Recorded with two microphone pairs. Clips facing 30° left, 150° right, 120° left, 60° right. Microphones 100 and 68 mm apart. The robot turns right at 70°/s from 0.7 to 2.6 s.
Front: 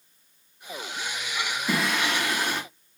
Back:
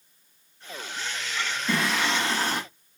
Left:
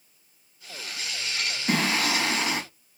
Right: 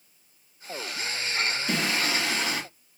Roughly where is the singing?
Left.